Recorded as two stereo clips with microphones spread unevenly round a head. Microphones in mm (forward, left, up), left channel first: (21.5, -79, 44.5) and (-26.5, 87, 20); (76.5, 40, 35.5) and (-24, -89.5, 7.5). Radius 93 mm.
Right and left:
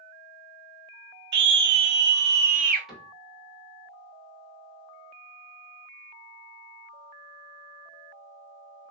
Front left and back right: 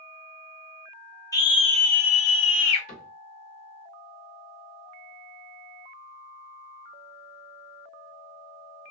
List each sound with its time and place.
1.3 s a scream: 125° left, 0.8 m; by 2.9 s 60° left, 1.0 m
2.9 s a cupboard door: 15° left, 1.4 m